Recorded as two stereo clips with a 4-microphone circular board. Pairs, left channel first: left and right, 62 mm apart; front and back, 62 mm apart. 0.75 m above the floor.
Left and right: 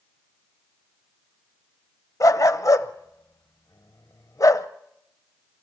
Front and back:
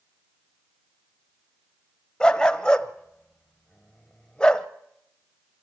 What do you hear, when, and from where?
2.2 s a dog barking: 75° left, 0.9 m